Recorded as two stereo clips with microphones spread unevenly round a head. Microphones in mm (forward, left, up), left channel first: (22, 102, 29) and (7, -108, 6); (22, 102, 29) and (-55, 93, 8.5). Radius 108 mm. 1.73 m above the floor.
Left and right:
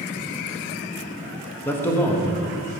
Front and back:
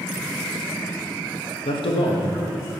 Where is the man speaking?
5° left, 1.0 m.